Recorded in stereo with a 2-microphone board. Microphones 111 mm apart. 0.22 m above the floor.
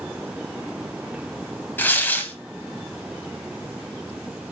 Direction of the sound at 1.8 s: 15° left (ahead or behind).